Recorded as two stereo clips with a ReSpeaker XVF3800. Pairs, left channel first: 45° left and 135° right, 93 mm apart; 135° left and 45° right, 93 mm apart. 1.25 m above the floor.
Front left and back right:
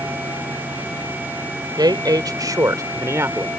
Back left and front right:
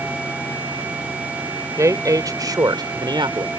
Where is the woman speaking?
95° right; by 3.5 s 75° right.